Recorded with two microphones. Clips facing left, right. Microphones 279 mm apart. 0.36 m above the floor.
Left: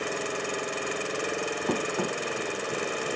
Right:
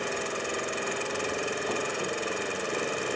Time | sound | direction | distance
1.7 | running footsteps | 60° left (ahead or behind) | 0.6 m